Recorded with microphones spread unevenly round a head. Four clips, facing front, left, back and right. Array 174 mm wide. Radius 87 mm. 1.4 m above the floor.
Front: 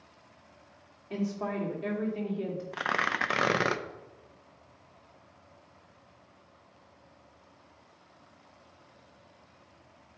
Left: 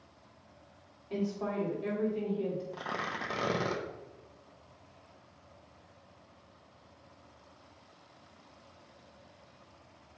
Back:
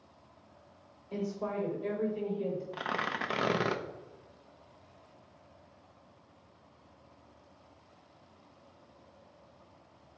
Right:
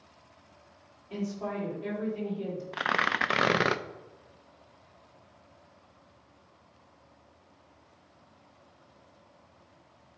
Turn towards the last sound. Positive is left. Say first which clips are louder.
# right 8 dB, front 4 dB
turn(degrees=-50)